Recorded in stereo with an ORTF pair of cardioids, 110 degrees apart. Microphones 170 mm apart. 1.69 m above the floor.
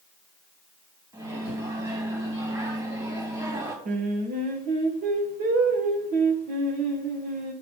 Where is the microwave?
25° right, 2.5 m.